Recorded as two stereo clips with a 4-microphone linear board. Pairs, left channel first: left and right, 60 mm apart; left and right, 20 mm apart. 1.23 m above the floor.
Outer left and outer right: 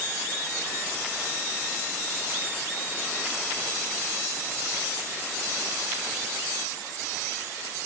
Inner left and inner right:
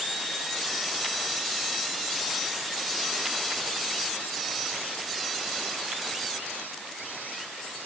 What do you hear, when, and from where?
Only background noise.